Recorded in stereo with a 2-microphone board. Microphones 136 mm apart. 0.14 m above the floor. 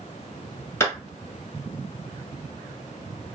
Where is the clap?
20° left (ahead or behind), 1.4 m.